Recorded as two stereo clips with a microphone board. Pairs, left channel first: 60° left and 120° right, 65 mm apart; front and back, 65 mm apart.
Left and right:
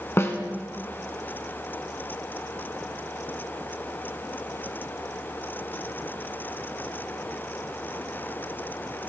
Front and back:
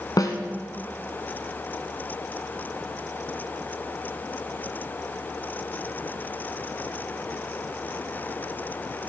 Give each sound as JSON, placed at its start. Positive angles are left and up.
{"t": 0.2, "sound": "a snare drum", "azimuth_deg": 15, "distance_m": 1.6}